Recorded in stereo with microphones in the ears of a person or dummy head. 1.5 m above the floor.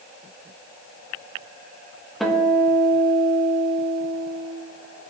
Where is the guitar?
5° right (ahead or behind), 1.2 m.